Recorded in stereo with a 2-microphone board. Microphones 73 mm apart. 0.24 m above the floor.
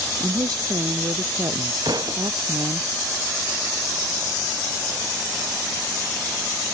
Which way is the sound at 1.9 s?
65° right (ahead or behind).